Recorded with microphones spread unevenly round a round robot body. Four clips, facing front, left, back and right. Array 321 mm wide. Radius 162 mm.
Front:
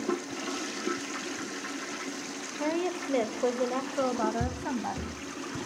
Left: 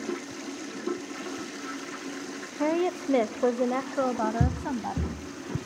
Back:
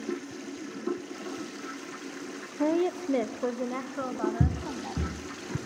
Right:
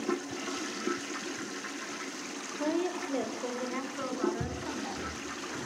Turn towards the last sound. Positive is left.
turn(degrees=125)